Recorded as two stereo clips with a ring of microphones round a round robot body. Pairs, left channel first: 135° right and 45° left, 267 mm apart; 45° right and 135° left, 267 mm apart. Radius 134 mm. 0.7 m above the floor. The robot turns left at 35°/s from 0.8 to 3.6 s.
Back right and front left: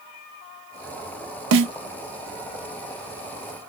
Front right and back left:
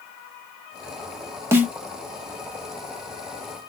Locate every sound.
1.5 s a snare drum: 60° left, 1.4 m; by 1.7 s 50° left, 1.4 m